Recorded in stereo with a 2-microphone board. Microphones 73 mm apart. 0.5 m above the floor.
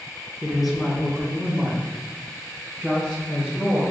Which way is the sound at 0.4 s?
5° right (ahead or behind).